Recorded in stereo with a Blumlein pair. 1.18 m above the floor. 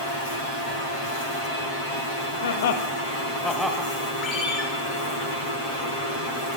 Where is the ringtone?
20° left, 1.9 m.